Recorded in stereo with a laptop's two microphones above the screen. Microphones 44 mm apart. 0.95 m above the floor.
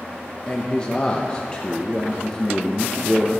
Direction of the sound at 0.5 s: 20° left (ahead or behind).